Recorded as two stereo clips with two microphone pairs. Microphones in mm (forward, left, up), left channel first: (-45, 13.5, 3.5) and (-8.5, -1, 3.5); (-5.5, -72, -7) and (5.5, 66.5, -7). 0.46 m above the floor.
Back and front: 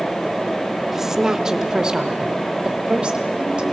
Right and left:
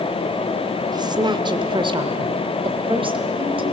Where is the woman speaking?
55° left, 1.2 m; by 3.6 s 40° left, 2.5 m.